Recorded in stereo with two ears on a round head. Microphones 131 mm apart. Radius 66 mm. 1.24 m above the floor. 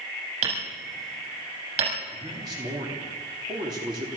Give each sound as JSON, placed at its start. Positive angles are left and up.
{"t": 0.4, "sound": "hammering", "side_deg": -55, "distance_m": 7.0}
{"t": 2.1, "sound": "a man speaking", "side_deg": -30, "distance_m": 3.5}